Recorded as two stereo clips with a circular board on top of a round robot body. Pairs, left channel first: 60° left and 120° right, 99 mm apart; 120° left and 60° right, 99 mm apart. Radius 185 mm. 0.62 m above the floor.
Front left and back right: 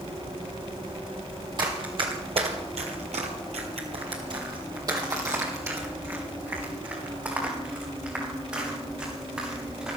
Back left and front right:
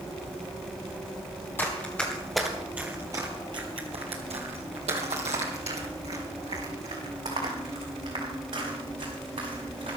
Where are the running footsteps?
170° right, 1.9 m; by 10.0 s 40° right, 6 m.